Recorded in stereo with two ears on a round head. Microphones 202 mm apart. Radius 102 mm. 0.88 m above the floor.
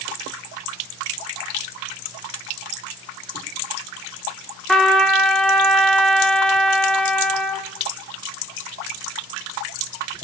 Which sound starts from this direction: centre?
A trumpet, at 4.7 s.